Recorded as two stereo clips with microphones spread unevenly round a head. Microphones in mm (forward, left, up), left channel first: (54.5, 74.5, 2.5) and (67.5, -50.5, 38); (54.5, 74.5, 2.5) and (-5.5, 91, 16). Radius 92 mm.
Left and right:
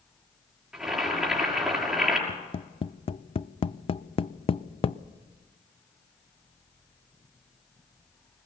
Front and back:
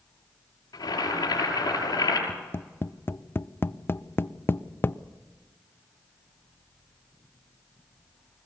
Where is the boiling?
5° right, 6 m.